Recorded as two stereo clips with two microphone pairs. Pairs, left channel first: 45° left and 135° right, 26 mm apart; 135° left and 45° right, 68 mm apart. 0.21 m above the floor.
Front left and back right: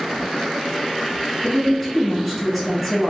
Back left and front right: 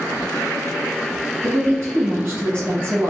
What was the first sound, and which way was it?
A woman speaking, 55° right.